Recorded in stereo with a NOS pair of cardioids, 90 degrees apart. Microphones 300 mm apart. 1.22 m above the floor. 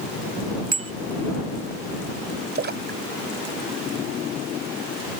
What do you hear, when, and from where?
0.7 s a bicycle bell: 45° right
2.5 s a splash: 35° right